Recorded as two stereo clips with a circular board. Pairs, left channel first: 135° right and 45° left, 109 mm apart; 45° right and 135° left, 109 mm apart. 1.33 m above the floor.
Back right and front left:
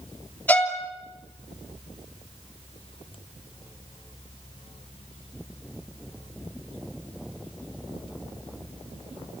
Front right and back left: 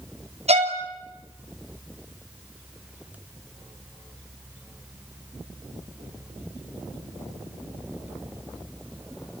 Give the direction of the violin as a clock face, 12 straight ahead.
7 o'clock.